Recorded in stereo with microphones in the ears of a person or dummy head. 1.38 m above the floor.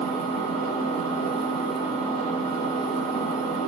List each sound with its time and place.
0.0 s an engine running: 35° left (ahead or behind), 1.2 m